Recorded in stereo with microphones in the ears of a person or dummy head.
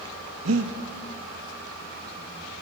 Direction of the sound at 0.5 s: 80° right.